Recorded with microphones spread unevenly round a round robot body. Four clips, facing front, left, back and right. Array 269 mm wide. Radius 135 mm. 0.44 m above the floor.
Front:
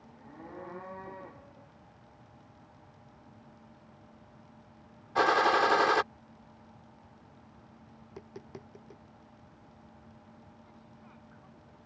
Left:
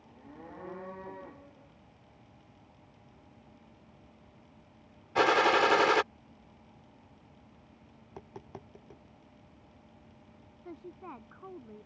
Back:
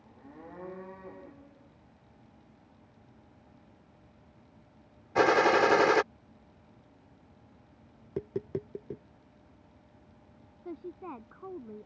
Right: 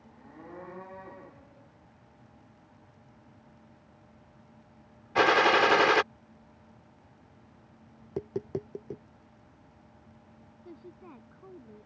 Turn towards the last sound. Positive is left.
turn(degrees=170)